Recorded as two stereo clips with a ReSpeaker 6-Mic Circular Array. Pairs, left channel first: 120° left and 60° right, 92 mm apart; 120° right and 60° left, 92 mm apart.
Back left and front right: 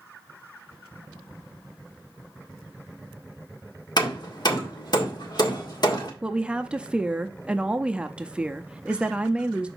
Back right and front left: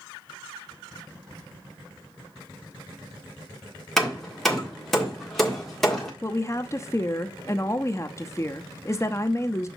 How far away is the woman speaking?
About 0.6 m.